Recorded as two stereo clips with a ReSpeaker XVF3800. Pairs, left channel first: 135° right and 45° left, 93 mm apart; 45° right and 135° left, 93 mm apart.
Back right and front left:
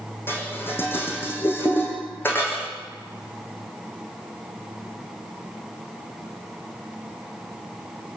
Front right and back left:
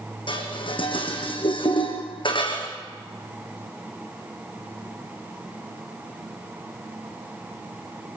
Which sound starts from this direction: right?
Dishes clattering, at 0.3 s.